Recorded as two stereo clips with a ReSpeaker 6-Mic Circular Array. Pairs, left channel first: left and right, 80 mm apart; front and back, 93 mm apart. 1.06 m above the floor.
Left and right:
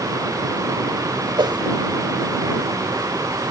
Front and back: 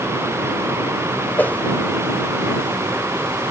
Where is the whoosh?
70° right.